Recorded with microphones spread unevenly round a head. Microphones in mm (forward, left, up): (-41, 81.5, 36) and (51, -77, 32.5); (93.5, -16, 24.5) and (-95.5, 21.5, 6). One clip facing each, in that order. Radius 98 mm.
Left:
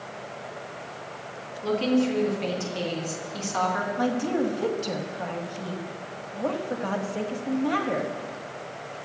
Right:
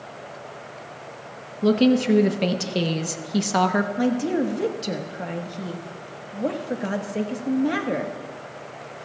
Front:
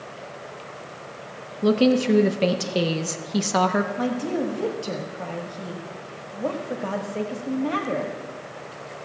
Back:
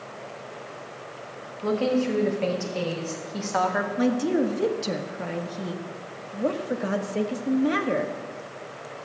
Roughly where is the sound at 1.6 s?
Ahead right.